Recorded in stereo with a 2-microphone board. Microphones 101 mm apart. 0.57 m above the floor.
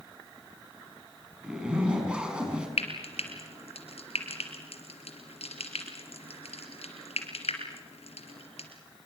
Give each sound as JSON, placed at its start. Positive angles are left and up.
{"t": 1.4, "sound": "a zipper", "side_deg": -10, "distance_m": 5.5}
{"t": 2.8, "sound": "frying", "side_deg": 85, "distance_m": 4.0}